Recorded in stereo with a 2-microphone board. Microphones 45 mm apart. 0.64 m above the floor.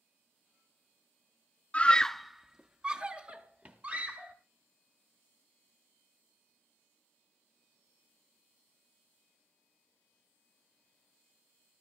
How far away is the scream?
About 0.6 m.